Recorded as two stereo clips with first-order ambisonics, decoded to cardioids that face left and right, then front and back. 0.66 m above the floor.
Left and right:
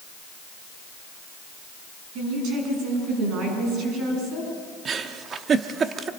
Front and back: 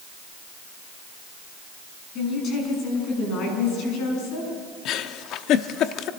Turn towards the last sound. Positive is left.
turn(degrees=-30)